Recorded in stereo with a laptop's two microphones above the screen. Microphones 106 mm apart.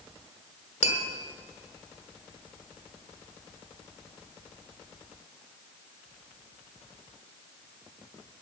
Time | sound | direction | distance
0.8 | tapping | 80° left | 1.5 m